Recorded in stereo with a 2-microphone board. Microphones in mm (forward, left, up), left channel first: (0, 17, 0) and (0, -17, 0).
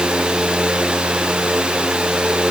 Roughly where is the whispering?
I don't hear whispering.